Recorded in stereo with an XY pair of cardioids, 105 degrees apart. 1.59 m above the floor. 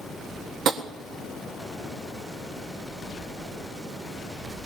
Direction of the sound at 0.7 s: 65° right.